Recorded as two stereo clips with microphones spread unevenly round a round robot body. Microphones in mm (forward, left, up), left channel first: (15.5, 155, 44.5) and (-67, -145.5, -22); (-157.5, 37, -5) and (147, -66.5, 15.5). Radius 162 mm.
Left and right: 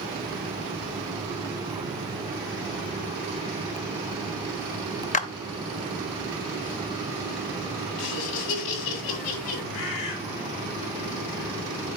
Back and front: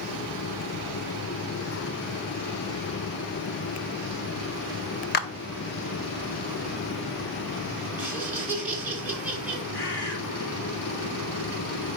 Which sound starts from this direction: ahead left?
Laughter, at 8.0 s.